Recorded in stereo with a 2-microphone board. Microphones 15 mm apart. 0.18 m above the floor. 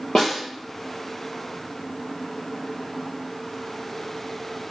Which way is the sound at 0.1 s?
75° left (ahead or behind).